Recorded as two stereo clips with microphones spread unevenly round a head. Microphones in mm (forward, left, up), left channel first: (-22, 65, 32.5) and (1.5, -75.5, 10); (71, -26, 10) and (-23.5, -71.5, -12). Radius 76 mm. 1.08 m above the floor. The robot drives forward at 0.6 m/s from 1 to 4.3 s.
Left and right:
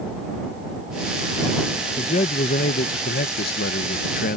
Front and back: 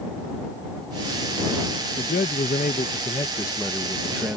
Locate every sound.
2.0 s a man speaking: 45° left; by 4.4 s 125° left